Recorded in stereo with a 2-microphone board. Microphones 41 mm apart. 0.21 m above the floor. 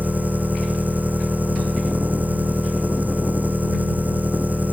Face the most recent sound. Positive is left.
turn(degrees=-45)  # may be behind; listen again after turning